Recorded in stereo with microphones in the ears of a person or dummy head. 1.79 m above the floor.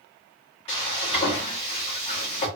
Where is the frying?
30° left (ahead or behind), 1.3 m.